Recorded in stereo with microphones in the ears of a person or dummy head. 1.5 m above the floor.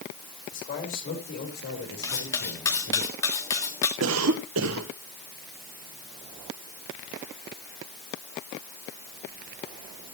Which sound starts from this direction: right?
A cough, at 4.0 s.